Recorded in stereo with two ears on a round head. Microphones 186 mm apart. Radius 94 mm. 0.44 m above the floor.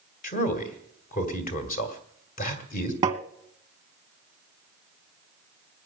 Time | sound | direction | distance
0.2 | a man speaking | 40° left (ahead or behind) | 2.5 m
3.0 | tapping | 15° right (ahead or behind) | 0.8 m